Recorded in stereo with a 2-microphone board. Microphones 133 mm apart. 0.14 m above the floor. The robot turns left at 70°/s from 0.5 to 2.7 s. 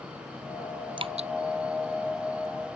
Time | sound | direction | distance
1.0 | dripping | 40° right (ahead or behind) | ?